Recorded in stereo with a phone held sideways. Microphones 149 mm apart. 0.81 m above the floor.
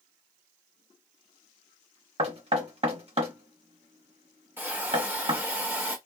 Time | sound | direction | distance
2.2 | knocking | 45° right (ahead or behind) | 1.0 m
4.6 | a hiss | 15° right (ahead or behind) | 1.2 m